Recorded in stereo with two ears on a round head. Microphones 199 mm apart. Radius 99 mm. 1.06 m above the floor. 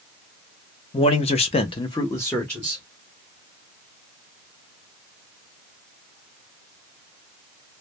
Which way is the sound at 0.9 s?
25° left (ahead or behind).